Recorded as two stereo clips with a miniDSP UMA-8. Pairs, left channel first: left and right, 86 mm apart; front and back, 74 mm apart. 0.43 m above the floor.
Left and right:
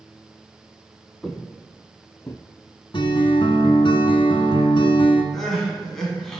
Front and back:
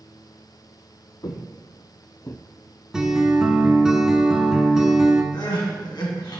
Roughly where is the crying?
Ahead.